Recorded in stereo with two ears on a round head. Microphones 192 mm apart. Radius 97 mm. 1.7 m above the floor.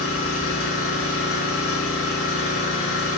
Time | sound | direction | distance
0.0 | an engine running | 70° left (ahead or behind) | 1.4 m